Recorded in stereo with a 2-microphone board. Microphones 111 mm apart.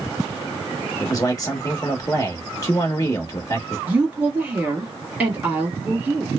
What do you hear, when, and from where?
1.0 s a man speaking: 35° left (ahead or behind), 0.9 m
3.9 s a woman speaking: 15° right (ahead or behind), 1.7 m